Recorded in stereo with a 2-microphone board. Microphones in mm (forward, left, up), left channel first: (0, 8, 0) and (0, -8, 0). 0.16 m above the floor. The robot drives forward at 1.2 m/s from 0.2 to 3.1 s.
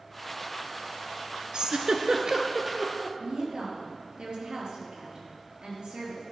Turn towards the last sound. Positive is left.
turn(degrees=-60)  # may be behind; listen again after turning